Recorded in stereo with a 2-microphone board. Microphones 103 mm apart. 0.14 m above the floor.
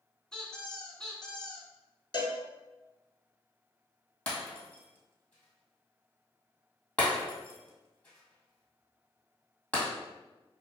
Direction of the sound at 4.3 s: 15° left (ahead or behind).